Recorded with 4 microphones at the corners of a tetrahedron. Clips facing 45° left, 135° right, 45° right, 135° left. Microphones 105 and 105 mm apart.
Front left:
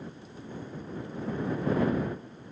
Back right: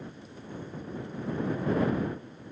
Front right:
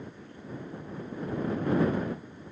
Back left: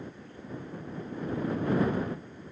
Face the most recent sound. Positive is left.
No sound to turn to.